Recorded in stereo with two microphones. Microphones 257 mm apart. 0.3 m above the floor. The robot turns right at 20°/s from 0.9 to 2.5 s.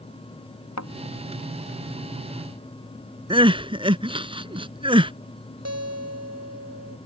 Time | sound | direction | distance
0.8 | a thud | 75° left (ahead or behind) | ?
3.3 | crying | 20° right (ahead or behind) | ?
5.7 | a guitar | 70° right (ahead or behind) | ?